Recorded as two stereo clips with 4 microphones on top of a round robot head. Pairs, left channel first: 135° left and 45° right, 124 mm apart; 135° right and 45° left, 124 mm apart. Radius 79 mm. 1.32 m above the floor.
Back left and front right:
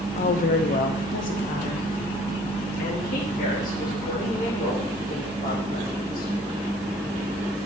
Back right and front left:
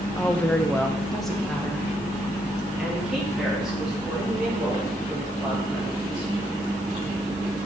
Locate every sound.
0.2 s a woman speaking: 150° left, 0.7 m; by 6.3 s 130° left, 4 m